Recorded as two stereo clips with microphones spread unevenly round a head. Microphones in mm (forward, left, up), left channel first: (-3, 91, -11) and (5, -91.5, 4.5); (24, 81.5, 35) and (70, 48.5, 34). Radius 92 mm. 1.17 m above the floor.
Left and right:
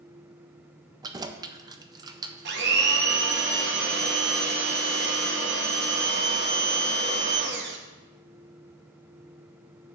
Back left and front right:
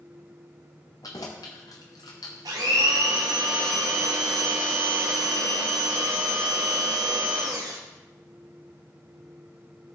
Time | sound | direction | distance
1.0 | keys jangling | 155° right | 0.5 m
2.5 | a blender | 55° right | 1.1 m